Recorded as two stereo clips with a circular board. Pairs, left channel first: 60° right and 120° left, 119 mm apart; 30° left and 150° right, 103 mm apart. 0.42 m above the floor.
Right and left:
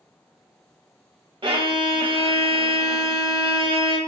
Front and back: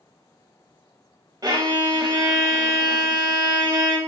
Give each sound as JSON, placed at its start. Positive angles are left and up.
{"t": 1.4, "sound": "a violin", "azimuth_deg": 165, "distance_m": 0.5}